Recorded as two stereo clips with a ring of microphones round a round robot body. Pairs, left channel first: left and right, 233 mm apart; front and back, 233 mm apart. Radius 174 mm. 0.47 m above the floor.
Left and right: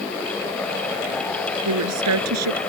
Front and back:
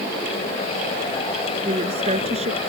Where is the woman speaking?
110° right.